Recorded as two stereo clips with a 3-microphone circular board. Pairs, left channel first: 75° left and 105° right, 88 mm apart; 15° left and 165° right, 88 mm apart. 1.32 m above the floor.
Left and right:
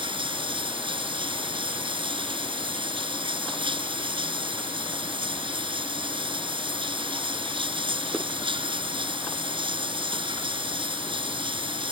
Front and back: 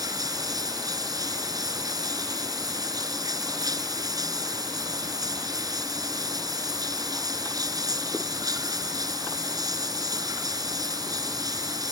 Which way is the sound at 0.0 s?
120° right.